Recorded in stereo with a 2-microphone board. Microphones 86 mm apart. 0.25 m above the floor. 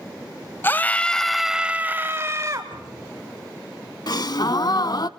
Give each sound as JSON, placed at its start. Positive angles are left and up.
{"t": 0.6, "sound": "a scream", "side_deg": 25, "distance_m": 1.0}
{"t": 2.7, "sound": "a cupboard door", "side_deg": -5, "distance_m": 8.5}
{"t": 4.1, "sound": "a gasp", "side_deg": 60, "distance_m": 0.6}